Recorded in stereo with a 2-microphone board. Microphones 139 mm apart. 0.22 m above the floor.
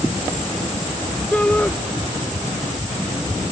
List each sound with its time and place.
1.3 s a shout: 10° left (ahead or behind)